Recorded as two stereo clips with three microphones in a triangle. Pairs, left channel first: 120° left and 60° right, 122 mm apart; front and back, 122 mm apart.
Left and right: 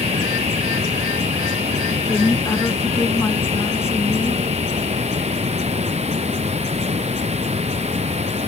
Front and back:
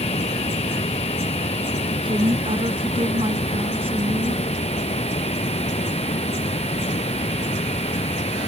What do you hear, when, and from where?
0.0 s running water: 30° right
2.0 s a woman speaking: straight behind